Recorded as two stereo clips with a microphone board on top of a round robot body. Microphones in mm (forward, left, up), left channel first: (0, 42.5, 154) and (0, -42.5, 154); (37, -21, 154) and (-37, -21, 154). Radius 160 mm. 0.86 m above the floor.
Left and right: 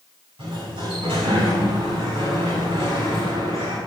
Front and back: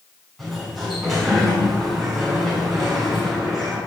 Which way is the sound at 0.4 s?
95° right.